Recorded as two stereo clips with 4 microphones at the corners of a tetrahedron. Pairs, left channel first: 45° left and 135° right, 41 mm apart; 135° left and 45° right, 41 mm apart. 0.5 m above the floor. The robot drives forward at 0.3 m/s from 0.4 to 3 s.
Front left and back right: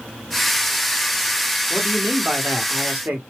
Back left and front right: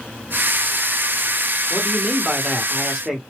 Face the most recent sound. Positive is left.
turn(degrees=-125)